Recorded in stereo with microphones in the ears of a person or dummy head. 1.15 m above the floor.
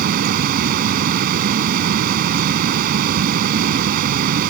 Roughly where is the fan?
Right.